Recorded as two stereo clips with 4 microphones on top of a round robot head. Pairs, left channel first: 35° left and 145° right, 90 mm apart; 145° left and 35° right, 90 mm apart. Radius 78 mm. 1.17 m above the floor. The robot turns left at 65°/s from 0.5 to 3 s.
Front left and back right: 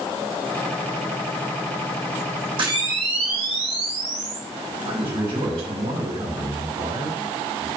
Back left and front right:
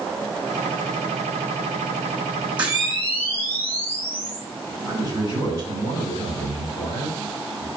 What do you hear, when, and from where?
2.6 s a camera shutter: 110° right, 3 m; by 4.5 s 135° right, 3 m
4.8 s a man speaking: 155° right, 4.5 m